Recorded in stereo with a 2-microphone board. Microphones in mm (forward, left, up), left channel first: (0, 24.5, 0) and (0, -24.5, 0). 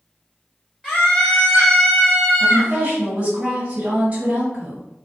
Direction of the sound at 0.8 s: 5° right (ahead or behind).